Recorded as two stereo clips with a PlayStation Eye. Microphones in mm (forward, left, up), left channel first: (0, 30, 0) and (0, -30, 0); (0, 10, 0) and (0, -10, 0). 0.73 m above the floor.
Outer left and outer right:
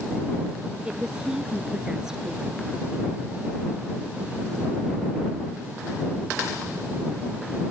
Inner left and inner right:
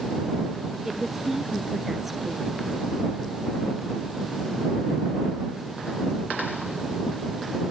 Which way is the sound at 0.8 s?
10° right (ahead or behind).